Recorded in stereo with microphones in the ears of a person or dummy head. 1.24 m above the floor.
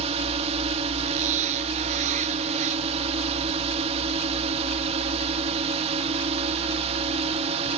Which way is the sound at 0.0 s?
30° right (ahead or behind).